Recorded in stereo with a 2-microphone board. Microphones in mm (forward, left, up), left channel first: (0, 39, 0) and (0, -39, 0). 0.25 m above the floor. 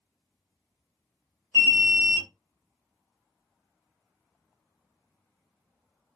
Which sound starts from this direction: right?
An alarm, at 1.5 s.